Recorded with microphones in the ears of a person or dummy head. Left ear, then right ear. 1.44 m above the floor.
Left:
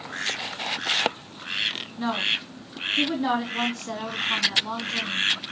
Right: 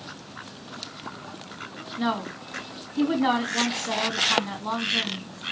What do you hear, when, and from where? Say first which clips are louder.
2.0 s a woman speaking: left 3 dB; 15° right (ahead or behind), 3 m